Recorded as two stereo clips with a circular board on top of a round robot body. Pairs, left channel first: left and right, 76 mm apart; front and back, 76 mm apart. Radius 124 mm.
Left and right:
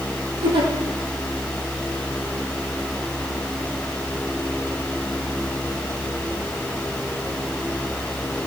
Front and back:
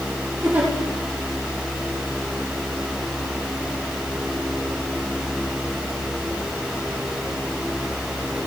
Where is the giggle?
105° right, 4 m.